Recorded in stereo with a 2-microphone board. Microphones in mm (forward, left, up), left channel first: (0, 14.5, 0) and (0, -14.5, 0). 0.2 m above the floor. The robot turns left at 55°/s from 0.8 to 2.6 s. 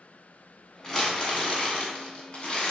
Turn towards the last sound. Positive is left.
turn(degrees=55)